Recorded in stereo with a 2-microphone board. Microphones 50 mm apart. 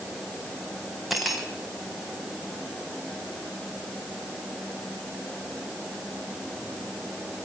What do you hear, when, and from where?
1.1 s cutlery clinking: centre (ahead or behind), 3.5 m